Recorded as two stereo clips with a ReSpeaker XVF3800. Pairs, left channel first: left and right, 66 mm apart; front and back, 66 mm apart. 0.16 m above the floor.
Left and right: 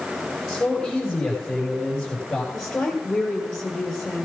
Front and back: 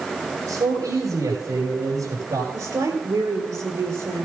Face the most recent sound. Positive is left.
turn(degrees=170)